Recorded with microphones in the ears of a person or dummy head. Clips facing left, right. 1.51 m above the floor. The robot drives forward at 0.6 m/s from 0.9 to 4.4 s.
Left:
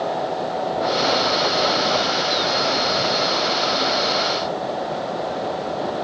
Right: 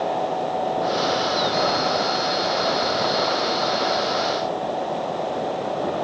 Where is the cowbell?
No cowbell in this recording.